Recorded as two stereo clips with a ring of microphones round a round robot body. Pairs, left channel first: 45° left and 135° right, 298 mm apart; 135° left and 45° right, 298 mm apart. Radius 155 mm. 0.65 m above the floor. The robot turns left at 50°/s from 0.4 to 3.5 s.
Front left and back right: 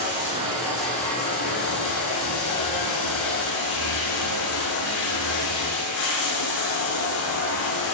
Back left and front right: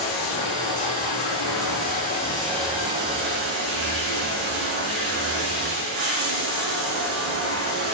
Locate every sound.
0.0 s running water: 155° left, 10 m; by 7.9 s straight ahead, 10 m